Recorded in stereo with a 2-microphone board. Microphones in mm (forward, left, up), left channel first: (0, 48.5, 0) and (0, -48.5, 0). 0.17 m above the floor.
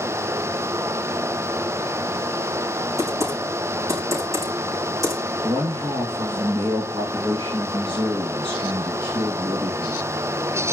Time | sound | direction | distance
3.0 | typing on a keyboard | 35° right (ahead or behind) | 6 m
5.4 | a man speaking | 65° right (ahead or behind) | 2.5 m